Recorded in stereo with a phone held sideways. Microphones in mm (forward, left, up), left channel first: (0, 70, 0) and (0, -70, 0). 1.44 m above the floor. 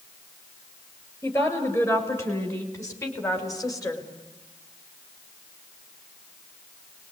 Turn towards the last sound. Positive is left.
turn(degrees=25)  # may be behind; listen again after turning